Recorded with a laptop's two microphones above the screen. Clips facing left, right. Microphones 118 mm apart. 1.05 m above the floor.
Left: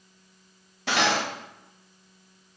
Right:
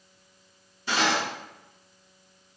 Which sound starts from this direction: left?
Cutlery clinking, at 0.9 s.